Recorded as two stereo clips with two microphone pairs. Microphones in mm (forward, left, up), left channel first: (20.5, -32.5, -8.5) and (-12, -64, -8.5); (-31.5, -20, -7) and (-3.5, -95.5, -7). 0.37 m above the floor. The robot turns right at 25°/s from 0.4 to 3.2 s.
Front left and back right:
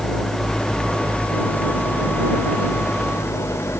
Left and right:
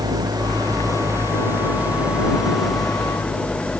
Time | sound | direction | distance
0.0 | an engine running | 35° right | ?